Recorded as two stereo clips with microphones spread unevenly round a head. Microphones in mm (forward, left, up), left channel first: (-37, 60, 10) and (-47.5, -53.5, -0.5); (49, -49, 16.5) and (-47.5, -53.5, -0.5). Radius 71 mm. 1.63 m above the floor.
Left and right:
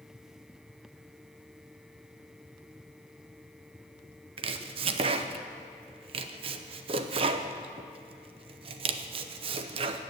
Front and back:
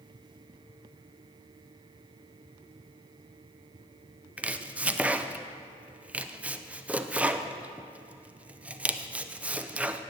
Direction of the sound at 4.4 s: 95° right.